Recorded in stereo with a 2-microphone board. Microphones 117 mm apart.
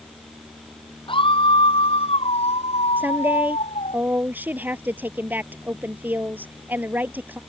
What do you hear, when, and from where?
1.1 s a scream: 45° left (ahead or behind); by 4.0 s 65° left (ahead or behind)
3.0 s a woman speaking: 15° right (ahead or behind)